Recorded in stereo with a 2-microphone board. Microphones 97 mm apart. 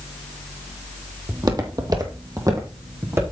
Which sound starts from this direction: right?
Footsteps, at 1.3 s.